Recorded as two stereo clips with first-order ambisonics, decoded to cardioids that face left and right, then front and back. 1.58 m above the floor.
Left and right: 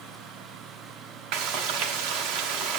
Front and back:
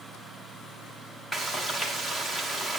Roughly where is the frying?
Right.